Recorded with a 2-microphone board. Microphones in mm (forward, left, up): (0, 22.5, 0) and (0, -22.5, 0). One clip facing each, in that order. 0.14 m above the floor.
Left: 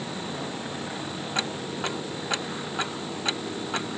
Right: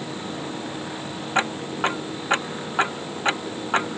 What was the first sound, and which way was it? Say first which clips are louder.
Ticking: right 8 dB; 35° right (ahead or behind).